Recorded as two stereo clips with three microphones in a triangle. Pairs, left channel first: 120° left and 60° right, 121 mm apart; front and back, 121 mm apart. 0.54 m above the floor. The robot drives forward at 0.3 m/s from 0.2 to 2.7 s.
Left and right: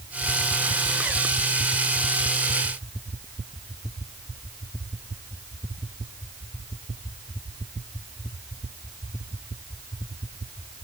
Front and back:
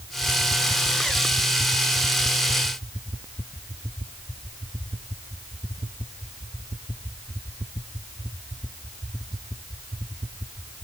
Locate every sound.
Only background noise.